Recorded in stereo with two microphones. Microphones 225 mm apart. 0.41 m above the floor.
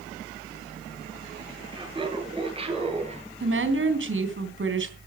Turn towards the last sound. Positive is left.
turn(degrees=-55)  # may be behind; listen again after turning